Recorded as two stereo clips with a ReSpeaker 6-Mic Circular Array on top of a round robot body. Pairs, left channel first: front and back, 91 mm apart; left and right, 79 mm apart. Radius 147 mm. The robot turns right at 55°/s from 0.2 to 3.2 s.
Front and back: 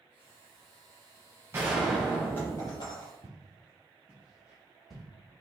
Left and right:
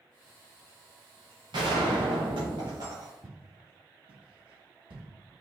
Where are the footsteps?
145° right, 1.2 m; by 5.0 s 85° right, 2.5 m.